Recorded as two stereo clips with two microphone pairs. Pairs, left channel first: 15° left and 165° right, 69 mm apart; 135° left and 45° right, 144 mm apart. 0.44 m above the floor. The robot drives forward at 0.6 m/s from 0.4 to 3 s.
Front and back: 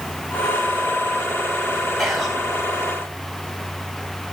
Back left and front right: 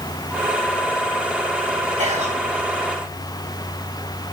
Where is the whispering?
75° right, 3.5 m.